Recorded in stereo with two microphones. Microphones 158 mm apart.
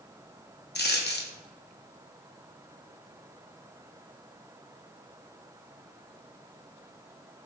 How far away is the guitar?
No guitar in this recording.